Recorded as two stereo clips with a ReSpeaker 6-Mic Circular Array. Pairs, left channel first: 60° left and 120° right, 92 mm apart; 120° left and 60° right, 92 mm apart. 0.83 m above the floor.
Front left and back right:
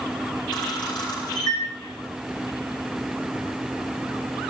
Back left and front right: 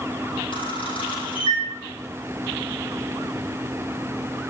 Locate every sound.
0.5 s a camera shutter: 100° left, 7.5 m